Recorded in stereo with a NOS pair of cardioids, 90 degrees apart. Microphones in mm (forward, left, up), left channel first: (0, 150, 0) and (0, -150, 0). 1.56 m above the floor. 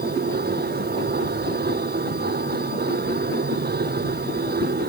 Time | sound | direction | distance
0.0 | a machine running | 30° right | ?